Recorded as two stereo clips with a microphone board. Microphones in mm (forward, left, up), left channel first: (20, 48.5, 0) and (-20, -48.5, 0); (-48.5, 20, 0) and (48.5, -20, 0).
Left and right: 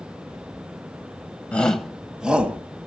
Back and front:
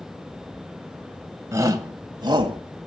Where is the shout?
Straight ahead, 1.3 m; by 2.6 s 40° right, 1.8 m.